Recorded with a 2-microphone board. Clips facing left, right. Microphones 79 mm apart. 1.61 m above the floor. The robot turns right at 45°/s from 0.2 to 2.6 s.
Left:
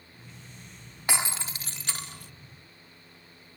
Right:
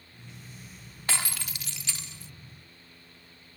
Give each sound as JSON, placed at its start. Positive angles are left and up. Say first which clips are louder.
{"t": 1.1, "sound": "breaking glass", "louder": "left 3 dB", "azimuth_deg": 20}